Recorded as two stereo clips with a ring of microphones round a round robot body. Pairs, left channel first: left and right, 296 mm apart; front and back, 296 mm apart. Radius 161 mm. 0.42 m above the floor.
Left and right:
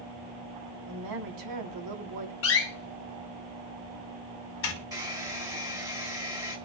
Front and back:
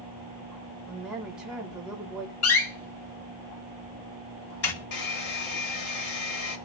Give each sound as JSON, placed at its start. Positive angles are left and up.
{"t": 0.9, "sound": "a woman speaking", "azimuth_deg": -90, "distance_m": 3.0}
{"t": 2.4, "sound": "a door slam", "azimuth_deg": 40, "distance_m": 2.5}
{"t": 4.9, "sound": "a hair dryer", "azimuth_deg": -10, "distance_m": 2.0}